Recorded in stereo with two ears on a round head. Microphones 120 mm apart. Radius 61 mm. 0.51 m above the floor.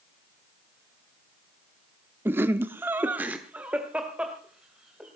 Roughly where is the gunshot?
No gunshot in this recording.